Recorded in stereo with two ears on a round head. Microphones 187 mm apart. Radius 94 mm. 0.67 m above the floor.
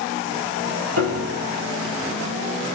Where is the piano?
80° right, 4.5 m.